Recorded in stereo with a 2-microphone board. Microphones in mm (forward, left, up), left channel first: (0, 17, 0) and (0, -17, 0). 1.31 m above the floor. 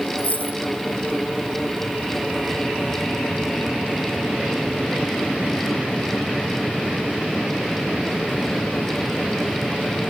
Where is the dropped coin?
45° left (ahead or behind), 1.8 m.